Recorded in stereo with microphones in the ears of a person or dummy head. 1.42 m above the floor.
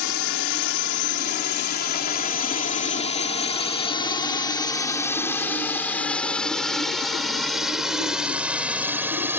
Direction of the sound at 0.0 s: 70° left (ahead or behind).